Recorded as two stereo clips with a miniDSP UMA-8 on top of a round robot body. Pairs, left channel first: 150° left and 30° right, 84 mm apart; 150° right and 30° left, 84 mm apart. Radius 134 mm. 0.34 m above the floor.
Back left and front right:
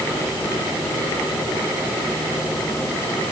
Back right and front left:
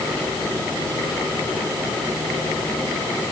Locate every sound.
Only background noise.